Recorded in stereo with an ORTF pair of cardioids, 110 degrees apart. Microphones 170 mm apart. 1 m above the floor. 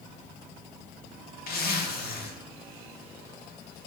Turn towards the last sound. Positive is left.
turn(degrees=65)